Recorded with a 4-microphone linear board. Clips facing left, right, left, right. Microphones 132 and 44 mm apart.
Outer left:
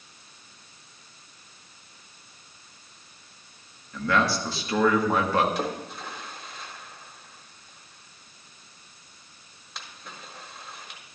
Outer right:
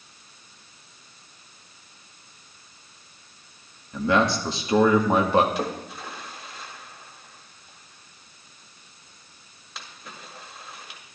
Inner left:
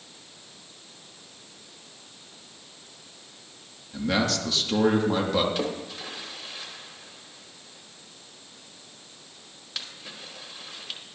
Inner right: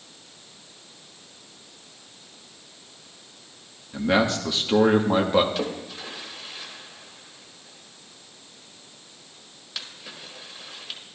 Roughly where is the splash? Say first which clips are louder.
Outer right 1 dB, even; centre.